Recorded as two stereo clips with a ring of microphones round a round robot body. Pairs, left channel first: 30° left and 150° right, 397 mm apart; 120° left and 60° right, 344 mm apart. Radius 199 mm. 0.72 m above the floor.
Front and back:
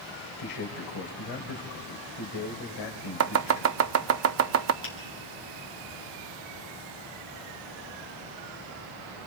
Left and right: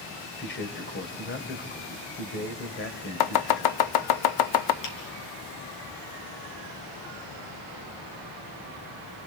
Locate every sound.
0.4 s a man speaking: 60° left, 3 m
3.2 s chopping: 150° left, 0.6 m
4.8 s a finger snap: 90° left, 4.5 m